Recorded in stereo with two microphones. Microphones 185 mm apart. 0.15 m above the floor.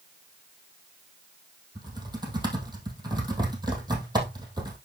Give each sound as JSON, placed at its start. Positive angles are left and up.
{"t": 1.8, "sound": "typing on a keyboard", "side_deg": -25, "distance_m": 2.5}